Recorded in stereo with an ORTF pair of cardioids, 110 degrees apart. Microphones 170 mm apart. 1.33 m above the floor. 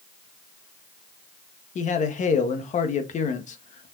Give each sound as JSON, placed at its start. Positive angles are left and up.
{"t": 1.8, "sound": "a man speaking", "azimuth_deg": 45, "distance_m": 1.7}